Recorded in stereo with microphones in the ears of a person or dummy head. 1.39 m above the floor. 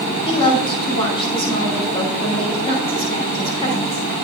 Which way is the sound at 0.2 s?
30° left (ahead or behind).